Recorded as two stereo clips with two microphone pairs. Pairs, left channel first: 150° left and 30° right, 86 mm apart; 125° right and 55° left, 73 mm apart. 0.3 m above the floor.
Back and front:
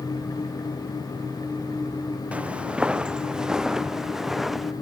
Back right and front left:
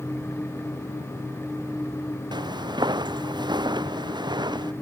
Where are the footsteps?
45° left; by 4.7 s 60° left.